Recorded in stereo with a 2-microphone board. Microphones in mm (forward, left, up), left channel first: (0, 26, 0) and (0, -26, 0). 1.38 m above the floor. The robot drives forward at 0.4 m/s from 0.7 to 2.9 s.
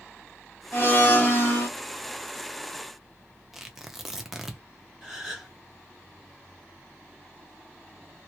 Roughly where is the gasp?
Centre.